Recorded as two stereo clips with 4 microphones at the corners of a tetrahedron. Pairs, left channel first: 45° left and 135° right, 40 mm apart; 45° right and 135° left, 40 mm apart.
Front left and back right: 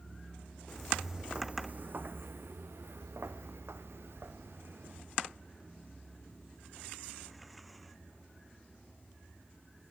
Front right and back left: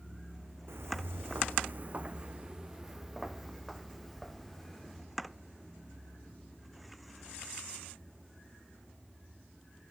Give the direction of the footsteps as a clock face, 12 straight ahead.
8 o'clock.